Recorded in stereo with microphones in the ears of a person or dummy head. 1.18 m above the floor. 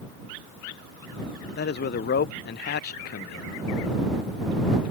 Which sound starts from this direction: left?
A man speaking, at 1.6 s.